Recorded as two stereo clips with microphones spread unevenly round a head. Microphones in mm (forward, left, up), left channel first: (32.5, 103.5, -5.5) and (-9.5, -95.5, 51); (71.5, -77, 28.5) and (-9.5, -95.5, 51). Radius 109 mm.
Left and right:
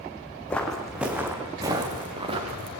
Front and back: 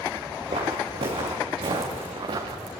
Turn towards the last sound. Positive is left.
turn(degrees=-160)